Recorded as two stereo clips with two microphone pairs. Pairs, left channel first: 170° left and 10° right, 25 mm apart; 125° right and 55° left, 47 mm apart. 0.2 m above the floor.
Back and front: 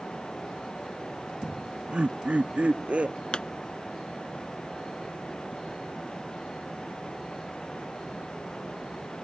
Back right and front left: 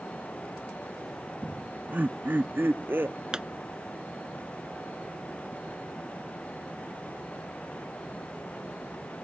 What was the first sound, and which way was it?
Laughter, 5° left.